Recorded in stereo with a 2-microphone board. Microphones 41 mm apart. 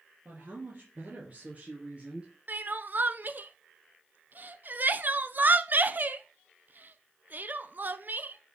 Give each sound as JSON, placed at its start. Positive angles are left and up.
{"t": 0.2, "sound": "a woman speaking", "side_deg": -40, "distance_m": 3.0}
{"t": 2.5, "sound": "crying", "side_deg": -45, "distance_m": 0.5}